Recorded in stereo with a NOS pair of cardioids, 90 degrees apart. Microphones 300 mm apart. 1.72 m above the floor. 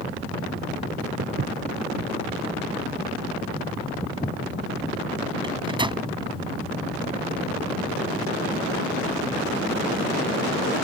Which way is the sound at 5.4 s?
15° right.